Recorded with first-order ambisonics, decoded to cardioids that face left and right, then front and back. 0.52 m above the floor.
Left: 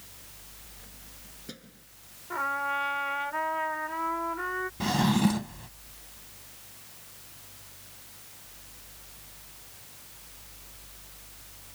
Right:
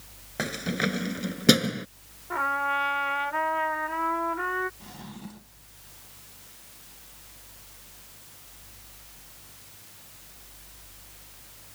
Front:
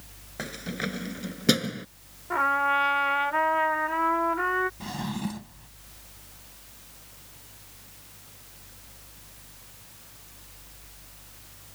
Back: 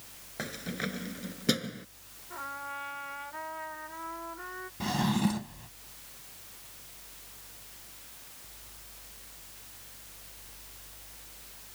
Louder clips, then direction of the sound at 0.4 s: Right 22 dB, front 3 dB; 80° right.